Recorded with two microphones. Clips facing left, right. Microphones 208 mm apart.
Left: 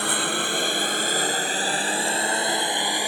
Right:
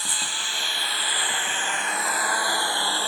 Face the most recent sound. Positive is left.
turn(degrees=15)  # may be behind; listen again after turning